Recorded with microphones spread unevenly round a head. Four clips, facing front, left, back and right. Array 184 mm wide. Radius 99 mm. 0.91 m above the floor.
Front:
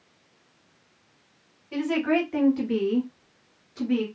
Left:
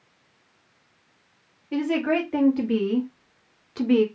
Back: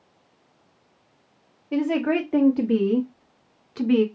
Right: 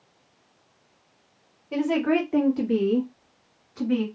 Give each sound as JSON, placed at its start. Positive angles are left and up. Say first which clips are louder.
{"t": 1.7, "sound": "a woman speaking", "louder": "right 1 dB, back 2 dB", "azimuth_deg": -150, "distance_m": 1.5}